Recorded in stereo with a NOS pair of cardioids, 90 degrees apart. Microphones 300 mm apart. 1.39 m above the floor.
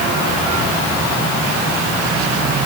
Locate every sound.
Only background noise.